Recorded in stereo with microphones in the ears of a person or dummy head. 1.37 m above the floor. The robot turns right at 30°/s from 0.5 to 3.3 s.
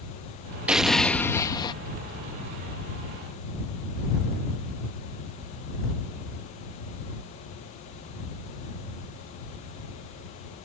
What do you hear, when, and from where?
0.7 s an explosion: 5° right; by 1.8 s 25° left